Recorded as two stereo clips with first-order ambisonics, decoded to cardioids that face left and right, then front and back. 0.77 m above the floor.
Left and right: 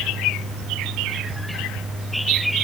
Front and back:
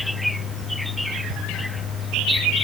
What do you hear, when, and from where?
Only background noise.